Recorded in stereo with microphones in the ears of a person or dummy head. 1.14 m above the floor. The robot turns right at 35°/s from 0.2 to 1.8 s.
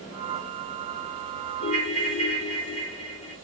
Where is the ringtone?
70° left (ahead or behind), 2.5 m; by 3.4 s 65° left (ahead or behind), 2.5 m.